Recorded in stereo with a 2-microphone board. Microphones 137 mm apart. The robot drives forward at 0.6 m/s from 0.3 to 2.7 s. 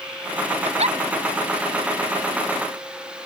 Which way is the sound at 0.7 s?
50° right (ahead or behind).